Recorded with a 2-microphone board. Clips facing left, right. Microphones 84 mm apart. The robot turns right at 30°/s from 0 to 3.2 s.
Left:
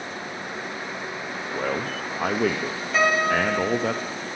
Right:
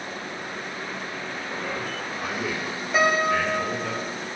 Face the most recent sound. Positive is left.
turn(degrees=0)  # may be behind; listen again after turning